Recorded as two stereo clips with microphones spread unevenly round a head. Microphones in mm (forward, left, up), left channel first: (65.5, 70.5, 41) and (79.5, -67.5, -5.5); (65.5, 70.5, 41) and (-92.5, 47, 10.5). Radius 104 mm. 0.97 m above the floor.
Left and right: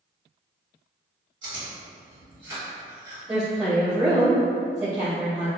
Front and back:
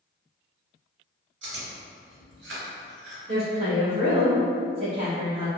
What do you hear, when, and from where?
1.4 s chewing: 155° right, 0.9 m
3.3 s a woman speaking: 145° right, 1.1 m